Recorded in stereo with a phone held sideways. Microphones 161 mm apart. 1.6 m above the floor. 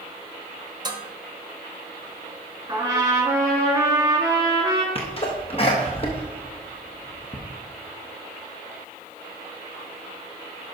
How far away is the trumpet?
About 2 m.